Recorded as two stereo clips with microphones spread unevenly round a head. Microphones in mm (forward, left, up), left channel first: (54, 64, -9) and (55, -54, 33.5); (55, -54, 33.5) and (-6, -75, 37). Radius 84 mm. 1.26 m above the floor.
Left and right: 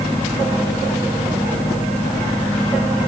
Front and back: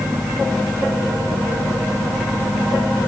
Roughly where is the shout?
I don't hear a shout.